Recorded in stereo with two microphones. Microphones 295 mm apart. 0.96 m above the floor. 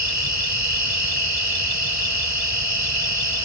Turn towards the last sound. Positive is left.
turn(degrees=-65)  # may be behind; listen again after turning